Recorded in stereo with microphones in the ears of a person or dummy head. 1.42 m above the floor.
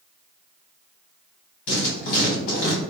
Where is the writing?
55° left (ahead or behind), 1.6 m.